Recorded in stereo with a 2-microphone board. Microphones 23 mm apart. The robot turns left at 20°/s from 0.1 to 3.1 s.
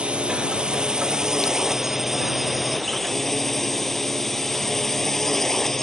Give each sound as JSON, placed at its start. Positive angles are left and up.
{"t": 0.0, "sound": "a drone", "side_deg": -45}